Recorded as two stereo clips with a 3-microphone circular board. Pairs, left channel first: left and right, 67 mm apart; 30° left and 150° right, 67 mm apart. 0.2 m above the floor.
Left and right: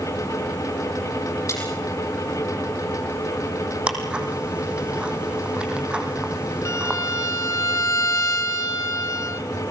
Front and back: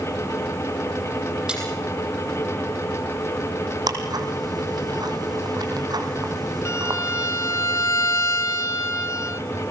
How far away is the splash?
About 8 m.